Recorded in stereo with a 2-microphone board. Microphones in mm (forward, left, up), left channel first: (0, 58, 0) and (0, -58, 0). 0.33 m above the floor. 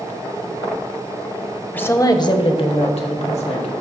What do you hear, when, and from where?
1.7 s a woman speaking: 15° left (ahead or behind), 1.0 m; by 3.7 s 70° left (ahead or behind), 3 m